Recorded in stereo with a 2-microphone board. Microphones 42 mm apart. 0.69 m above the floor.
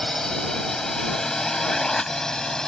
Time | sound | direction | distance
0.0 | a drone | 15° left (ahead or behind) | ?